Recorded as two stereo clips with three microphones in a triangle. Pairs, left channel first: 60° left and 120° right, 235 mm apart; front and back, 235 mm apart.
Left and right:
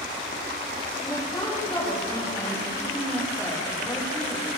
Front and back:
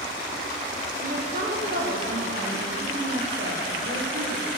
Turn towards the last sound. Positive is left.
turn(degrees=140)